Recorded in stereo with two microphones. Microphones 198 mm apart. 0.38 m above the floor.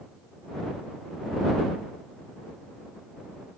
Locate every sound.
Only background noise.